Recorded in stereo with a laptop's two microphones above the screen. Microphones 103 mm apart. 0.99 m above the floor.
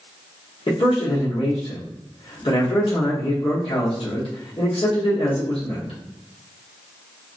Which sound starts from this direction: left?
A man speaking, at 0.7 s.